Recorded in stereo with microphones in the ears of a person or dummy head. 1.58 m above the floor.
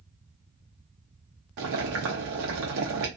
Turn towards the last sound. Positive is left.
turn(degrees=-55)  # may be behind; listen again after turning